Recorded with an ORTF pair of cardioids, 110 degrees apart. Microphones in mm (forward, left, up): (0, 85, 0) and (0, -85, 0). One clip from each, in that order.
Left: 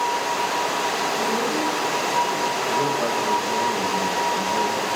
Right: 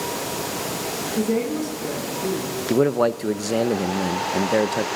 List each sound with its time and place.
1.2 s a woman speaking: 50° right, 9 m
2.7 s a man speaking: 65° right, 0.9 m